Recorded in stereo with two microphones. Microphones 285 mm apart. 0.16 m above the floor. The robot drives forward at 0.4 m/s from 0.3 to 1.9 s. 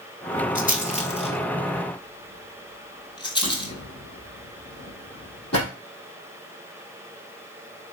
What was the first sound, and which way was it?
A rattle, 30° left (ahead or behind).